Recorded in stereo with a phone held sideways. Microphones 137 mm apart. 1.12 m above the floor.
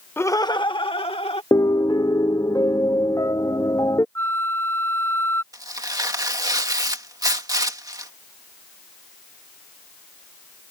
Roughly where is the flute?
Centre.